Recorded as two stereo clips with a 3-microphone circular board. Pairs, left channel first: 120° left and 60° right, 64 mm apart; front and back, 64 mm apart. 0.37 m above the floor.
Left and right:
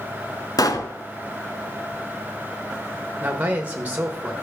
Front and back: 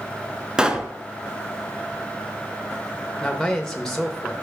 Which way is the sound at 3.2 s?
70° right.